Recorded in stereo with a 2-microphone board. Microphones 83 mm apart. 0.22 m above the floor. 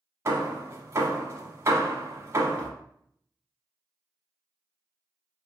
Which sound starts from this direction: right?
Hammering, at 0.2 s.